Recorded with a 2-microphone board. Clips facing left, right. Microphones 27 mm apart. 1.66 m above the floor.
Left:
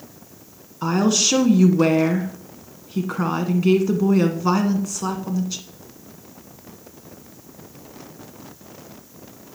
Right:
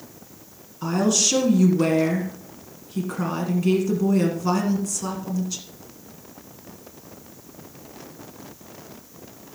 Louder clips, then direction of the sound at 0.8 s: Left 2 dB; 30° left (ahead or behind).